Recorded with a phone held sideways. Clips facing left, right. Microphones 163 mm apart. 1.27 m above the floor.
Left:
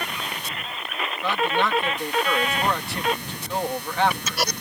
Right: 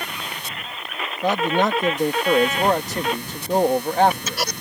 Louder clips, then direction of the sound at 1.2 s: Right 4 dB; 45° right (ahead or behind).